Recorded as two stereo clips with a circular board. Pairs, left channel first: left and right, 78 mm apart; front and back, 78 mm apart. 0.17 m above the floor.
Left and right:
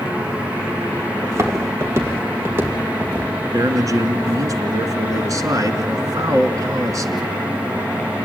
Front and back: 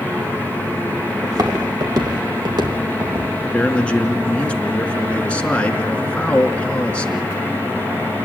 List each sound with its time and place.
1.2 s footsteps: 140° right, 3.5 m; by 3.3 s 155° right, 4 m
3.5 s a man speaking: 70° right, 2.5 m